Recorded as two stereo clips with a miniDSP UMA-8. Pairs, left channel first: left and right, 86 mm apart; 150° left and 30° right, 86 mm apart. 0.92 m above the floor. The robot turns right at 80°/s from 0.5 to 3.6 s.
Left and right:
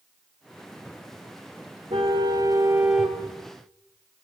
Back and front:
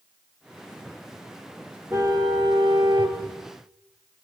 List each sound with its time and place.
1.9 s a car horn: 90° right, 3.5 m; by 3.2 s 15° left, 3.5 m